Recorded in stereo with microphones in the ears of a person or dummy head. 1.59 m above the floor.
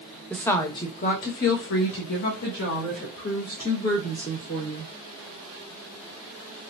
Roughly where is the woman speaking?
Centre.